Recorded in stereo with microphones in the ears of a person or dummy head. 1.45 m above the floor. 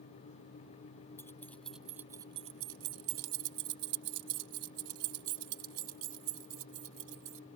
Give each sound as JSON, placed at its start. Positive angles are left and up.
{"t": 1.2, "sound": "keys jangling", "side_deg": 10}